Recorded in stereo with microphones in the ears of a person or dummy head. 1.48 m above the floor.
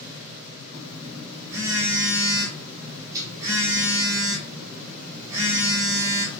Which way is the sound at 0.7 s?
15° right (ahead or behind).